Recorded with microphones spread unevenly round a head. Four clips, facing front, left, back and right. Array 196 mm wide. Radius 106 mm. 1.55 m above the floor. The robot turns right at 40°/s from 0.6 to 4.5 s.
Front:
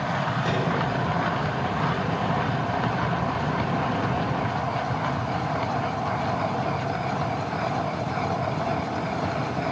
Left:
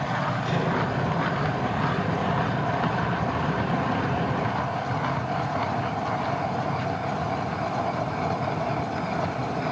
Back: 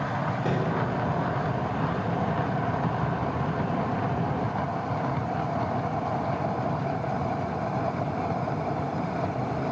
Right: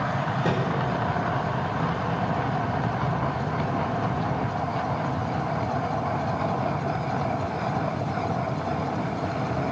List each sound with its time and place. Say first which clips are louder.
0.4 s a microwave: right 1 dB, even; 100° right, 4.5 m; by 0.7 s 95° right, 4.5 m